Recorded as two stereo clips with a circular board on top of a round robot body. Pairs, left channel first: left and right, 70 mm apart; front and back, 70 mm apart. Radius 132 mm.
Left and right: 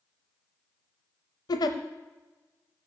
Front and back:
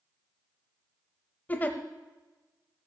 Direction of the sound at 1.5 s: 70° left.